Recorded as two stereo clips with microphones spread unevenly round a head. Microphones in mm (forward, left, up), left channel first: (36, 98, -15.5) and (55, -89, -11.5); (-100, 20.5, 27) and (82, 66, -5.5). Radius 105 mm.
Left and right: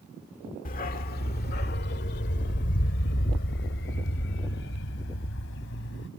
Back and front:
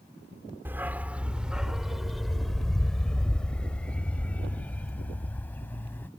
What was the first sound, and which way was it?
A dog barking, 100° left.